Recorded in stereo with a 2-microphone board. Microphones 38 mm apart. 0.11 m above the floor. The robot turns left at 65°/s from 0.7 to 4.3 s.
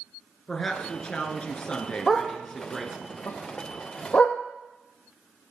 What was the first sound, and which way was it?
A woman speaking, 130° left.